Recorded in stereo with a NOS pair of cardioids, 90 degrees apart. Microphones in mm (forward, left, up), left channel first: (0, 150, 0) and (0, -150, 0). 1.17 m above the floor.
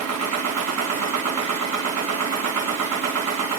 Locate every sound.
0.0 s a machine running: 65° right, 3 m